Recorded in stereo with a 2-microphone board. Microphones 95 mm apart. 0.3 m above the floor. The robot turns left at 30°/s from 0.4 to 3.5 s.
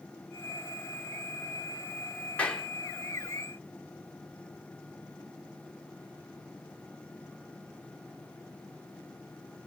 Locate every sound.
2.4 s a clap: 15° left (ahead or behind), 2.5 m; by 2.7 s 5° left (ahead or behind), 2.5 m